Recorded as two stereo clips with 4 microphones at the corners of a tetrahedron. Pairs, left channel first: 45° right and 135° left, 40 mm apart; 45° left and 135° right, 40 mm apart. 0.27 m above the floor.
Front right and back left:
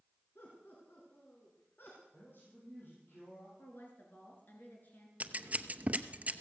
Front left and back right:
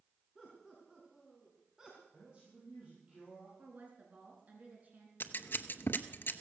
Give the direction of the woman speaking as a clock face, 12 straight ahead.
3 o'clock.